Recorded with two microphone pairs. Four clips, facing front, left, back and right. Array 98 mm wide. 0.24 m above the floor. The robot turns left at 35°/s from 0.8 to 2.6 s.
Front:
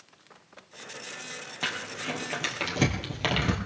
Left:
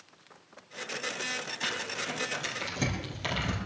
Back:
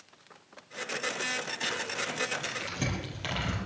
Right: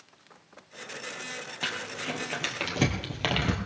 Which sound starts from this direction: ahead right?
Crumpling, at 1.6 s.